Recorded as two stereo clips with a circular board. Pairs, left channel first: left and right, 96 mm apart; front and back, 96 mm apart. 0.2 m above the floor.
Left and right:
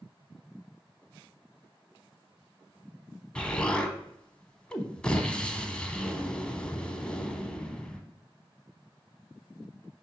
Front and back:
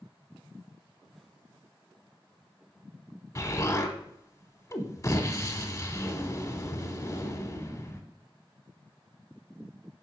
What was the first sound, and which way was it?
An explosion, 20° left.